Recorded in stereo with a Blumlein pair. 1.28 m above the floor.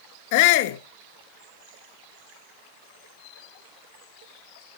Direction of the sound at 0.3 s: 50° left.